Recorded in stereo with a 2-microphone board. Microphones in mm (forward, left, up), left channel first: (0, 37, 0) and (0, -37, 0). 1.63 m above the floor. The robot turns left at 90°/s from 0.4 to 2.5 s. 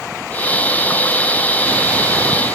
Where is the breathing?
I don't hear breathing.